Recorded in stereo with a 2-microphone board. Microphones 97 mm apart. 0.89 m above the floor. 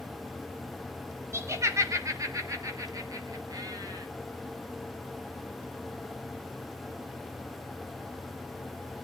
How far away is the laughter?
About 2.5 m.